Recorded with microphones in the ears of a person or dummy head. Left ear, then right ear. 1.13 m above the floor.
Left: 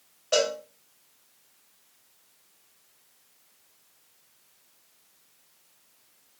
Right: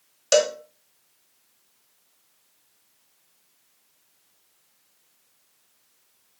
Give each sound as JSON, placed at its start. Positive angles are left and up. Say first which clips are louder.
{"t": 0.3, "sound": "a cowbell", "louder": "right 5 dB", "side_deg": -85, "distance_m": 0.7}